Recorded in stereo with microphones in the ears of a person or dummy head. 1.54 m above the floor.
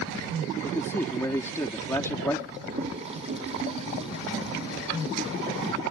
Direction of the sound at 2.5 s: 40° right (ahead or behind).